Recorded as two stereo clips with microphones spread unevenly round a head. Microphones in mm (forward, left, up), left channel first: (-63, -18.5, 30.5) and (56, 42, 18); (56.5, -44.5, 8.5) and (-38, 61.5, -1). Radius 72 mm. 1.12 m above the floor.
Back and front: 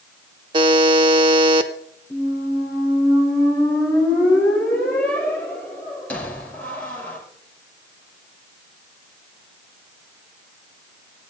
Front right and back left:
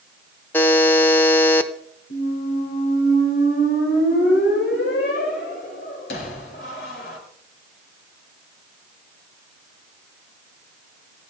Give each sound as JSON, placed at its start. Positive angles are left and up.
{"t": 0.5, "sound": "a buzzer", "azimuth_deg": 0, "distance_m": 0.8}
{"t": 2.1, "sound": "a squeak", "azimuth_deg": -75, "distance_m": 3.0}